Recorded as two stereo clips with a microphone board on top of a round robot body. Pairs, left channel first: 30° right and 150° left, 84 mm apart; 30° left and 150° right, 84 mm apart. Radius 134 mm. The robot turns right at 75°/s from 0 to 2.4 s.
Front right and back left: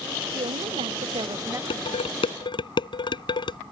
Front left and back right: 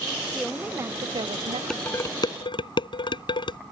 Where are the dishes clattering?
50° right; by 3.6 s straight ahead.